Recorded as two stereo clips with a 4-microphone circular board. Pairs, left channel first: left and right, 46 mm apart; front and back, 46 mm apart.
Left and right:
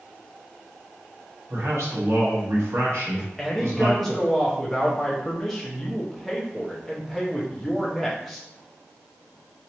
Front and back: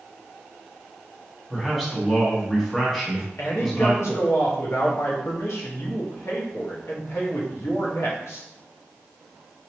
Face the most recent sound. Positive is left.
turn(degrees=0)